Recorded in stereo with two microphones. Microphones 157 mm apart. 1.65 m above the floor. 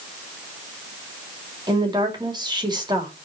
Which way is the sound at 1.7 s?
30° right (ahead or behind).